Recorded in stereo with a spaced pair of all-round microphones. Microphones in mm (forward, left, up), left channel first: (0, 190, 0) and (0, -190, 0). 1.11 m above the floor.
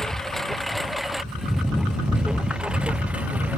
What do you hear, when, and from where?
0.0 s a lawn mower: centre (ahead or behind); by 3.6 s 5° right (ahead or behind)